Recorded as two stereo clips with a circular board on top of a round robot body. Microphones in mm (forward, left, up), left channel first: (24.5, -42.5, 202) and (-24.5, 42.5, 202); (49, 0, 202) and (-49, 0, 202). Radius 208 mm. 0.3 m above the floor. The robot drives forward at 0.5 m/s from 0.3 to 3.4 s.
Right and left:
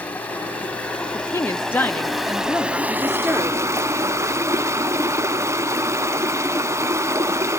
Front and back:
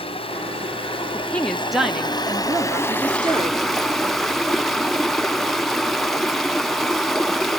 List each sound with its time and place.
0.0 s running water: 15° left, 1.8 m; by 7.6 s 90° left, 0.8 m
1.1 s a woman speaking: 55° right, 1.0 m; by 3.6 s 160° right, 1.3 m